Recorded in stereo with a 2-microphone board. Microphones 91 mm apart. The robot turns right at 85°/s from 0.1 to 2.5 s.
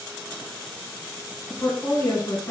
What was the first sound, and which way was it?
A woman speaking, 40° left.